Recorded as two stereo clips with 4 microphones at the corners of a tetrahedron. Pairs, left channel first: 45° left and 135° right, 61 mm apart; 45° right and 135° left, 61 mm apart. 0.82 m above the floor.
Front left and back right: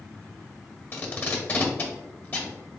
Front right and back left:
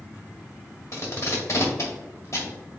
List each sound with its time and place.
0.9 s tape being pulled: 10° right, 1.4 m